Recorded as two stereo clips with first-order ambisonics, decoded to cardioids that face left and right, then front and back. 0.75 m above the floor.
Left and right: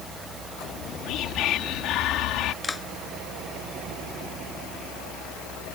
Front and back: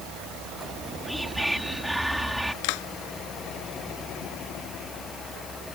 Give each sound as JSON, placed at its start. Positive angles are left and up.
{"t": 0.7, "sound": "whispering", "azimuth_deg": 95}
{"t": 2.6, "sound": "a clap", "azimuth_deg": 10}